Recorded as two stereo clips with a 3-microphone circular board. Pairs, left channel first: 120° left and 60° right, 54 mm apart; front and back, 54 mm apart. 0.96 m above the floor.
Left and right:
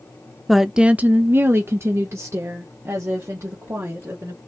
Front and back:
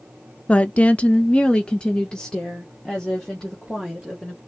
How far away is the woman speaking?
About 0.5 m.